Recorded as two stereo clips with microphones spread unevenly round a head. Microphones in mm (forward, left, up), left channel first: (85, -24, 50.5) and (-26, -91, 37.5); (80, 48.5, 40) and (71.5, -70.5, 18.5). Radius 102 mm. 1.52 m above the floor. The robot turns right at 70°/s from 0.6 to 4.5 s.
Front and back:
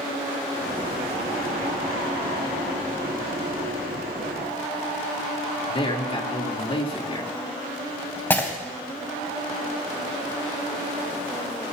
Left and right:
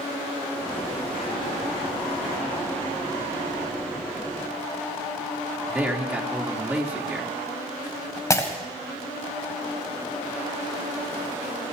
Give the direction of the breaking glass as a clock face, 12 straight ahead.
9 o'clock.